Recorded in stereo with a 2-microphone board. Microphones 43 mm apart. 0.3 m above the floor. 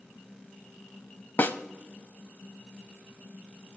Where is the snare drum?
50° left (ahead or behind), 0.5 m.